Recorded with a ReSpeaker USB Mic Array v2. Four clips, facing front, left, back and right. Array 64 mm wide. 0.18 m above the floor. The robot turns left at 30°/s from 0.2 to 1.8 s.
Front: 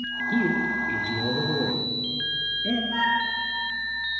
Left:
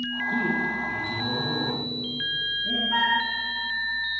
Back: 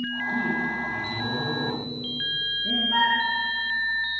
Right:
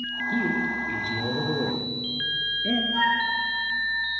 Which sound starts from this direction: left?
A flute, at 2.9 s.